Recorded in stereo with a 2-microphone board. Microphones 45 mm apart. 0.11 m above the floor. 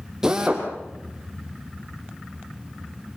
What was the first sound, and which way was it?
A drill, 15° right (ahead or behind).